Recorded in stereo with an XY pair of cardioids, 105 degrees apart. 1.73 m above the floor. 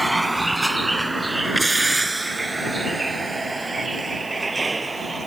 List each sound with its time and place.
0.0 s a vehicle: 10° right; by 5.3 s 25° right